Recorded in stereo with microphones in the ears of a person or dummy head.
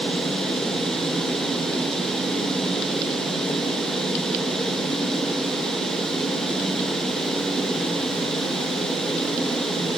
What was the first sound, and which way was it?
Only background noise.